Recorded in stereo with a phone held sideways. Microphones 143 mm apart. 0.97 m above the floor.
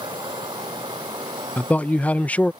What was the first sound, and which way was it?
Running water, 30° right (ahead or behind).